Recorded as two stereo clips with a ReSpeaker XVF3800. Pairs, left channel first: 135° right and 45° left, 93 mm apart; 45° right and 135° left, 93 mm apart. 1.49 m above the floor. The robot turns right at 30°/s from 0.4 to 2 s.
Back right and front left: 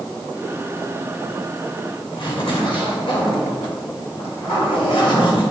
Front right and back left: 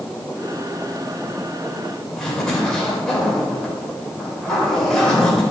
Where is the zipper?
130° right, 3 m.